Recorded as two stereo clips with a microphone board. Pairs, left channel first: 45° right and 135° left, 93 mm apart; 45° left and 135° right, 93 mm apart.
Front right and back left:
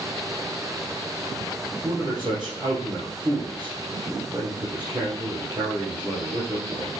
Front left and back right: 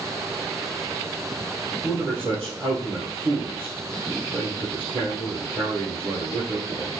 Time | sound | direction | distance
1.8 | a man speaking | 170° left | 2.5 m